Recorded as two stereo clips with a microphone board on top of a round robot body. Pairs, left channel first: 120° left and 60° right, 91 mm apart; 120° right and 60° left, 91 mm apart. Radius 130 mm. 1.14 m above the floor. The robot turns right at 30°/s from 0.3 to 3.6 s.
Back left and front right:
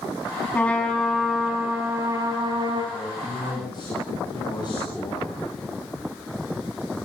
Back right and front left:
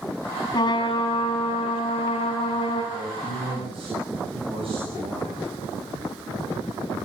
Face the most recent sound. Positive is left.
turn(degrees=75)